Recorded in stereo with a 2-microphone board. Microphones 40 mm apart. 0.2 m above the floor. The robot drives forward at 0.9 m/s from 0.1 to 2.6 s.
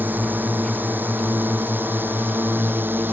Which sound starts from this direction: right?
A drone, at 0.0 s.